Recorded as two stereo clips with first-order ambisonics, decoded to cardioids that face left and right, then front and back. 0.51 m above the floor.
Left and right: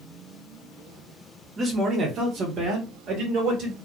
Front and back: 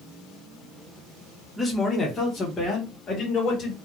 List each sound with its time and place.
1.6 s a man speaking: 70° right, 1.0 m; by 3.8 s 60° right, 2.0 m